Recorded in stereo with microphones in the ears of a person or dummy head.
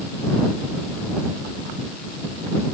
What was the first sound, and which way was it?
Only background noise.